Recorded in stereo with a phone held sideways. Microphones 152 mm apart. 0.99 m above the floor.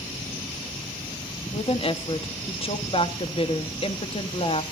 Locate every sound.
1.5 s a woman speaking: 40° left (ahead or behind), 1.3 m